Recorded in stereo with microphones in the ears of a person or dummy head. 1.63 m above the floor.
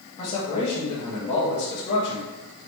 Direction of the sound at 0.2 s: 30° left (ahead or behind).